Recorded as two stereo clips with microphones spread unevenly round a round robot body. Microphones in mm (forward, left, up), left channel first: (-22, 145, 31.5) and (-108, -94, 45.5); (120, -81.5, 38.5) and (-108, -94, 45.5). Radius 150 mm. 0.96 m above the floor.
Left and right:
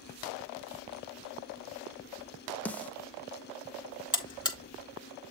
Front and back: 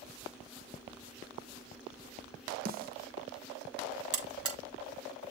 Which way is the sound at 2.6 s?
150° left.